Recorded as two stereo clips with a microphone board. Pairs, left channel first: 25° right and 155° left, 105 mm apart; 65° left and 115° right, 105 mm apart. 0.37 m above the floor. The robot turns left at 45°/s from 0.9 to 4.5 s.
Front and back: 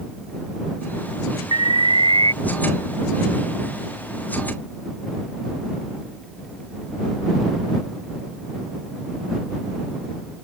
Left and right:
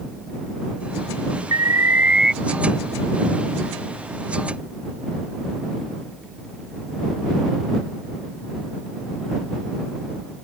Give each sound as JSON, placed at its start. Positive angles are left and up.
{"t": 1.5, "sound": "an alarm", "azimuth_deg": -160}